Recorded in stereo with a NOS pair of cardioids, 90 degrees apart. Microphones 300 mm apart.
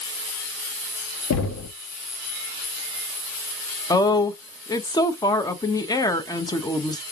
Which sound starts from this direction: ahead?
A woman speaking, at 3.9 s.